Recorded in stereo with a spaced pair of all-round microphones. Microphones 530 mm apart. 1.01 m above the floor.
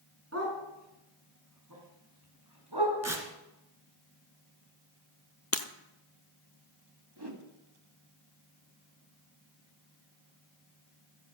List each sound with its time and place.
0.3 s a dog barking: 30° right (ahead or behind), 5 m; by 3.0 s 50° right (ahead or behind), 4.5 m
3.0 s tearing paper: 30° right (ahead or behind), 2.5 m
5.5 s breaking glass: 25° left (ahead or behind), 1.1 m
7.2 s a whoosh: 45° right (ahead or behind), 2.5 m